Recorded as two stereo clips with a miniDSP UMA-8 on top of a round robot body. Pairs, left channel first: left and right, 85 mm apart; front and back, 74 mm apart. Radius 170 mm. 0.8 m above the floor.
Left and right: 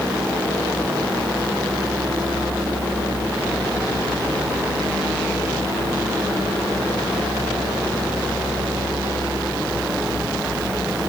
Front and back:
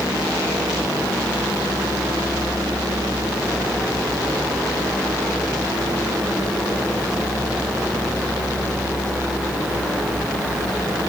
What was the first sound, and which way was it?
Only background noise.